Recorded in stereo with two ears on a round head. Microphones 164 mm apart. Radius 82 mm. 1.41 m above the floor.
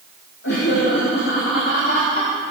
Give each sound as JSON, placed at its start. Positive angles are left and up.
{"t": 0.4, "sound": "laughter", "side_deg": 65, "distance_m": 2.5}